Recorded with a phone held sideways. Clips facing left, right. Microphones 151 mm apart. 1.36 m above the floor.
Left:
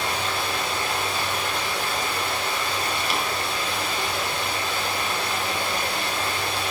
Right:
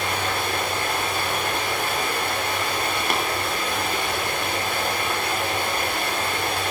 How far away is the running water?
About 4.5 m.